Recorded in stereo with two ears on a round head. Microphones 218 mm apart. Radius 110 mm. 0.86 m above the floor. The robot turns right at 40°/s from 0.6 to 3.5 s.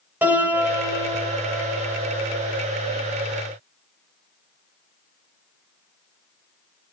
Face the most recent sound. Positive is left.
turn(degrees=-50)